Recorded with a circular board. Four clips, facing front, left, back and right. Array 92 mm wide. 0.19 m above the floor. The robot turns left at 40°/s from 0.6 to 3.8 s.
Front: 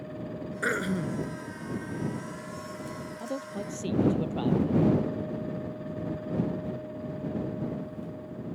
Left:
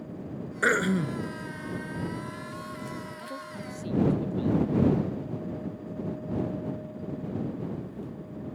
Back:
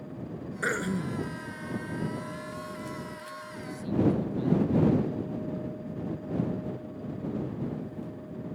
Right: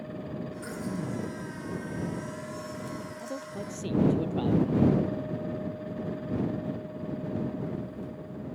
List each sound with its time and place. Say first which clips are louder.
0.6 s throat clearing: left 13 dB, front 1 dB; 90° left; by 1.3 s 65° left
3.2 s a man speaking: right 2 dB, front 6 dB; 10° right; by 4.8 s 30° right